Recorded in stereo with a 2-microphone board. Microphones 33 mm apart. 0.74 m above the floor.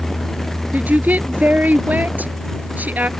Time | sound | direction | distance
0.7 | a woman speaking | 60° right (ahead or behind) | ?